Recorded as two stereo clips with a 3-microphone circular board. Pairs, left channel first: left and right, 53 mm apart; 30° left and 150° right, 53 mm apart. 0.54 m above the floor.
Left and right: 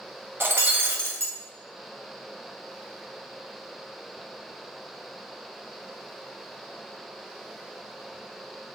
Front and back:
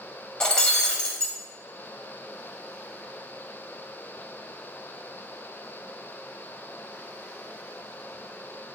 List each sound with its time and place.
0.4 s breaking glass: 45° right, 1.0 m